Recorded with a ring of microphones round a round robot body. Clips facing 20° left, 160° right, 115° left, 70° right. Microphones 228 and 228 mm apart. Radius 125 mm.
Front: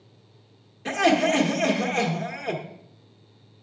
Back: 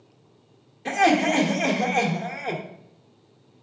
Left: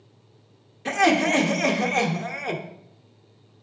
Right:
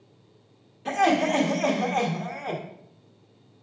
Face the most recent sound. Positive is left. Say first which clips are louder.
# even, left 2 dB
turn(degrees=100)